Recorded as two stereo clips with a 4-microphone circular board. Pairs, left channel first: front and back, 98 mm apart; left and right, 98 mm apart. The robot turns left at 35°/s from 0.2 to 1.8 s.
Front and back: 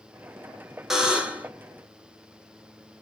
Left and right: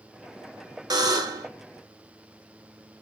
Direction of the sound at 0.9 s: 95° right.